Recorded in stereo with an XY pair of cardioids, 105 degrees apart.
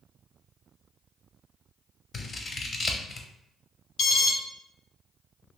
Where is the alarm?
60° left, 0.8 m.